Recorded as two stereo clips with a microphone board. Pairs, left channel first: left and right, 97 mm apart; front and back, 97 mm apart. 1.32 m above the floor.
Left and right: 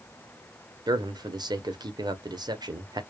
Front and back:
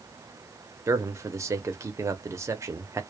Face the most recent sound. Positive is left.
turn(degrees=-125)